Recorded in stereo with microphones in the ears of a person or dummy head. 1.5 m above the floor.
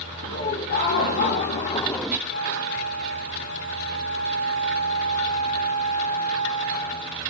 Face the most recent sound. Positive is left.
turn(degrees=55)  # may be behind; listen again after turning